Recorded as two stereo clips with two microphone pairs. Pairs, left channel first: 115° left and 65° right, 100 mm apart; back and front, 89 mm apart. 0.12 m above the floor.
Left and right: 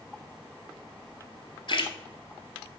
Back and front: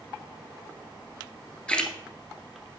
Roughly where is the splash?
Left.